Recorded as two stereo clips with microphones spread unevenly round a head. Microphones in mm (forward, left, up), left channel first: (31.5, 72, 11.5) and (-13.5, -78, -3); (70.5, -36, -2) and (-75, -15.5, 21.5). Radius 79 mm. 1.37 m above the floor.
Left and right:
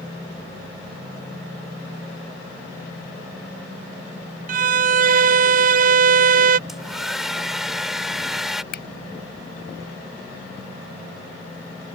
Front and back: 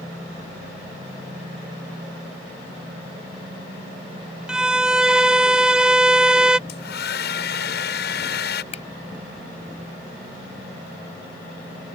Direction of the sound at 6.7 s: 20° right.